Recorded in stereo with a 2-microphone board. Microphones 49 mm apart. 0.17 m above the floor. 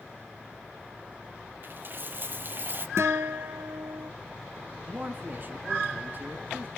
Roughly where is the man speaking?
Right.